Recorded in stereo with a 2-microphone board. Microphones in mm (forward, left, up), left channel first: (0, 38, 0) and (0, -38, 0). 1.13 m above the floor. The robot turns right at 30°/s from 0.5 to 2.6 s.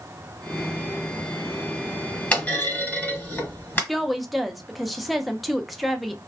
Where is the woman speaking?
Centre (ahead or behind), 0.6 m.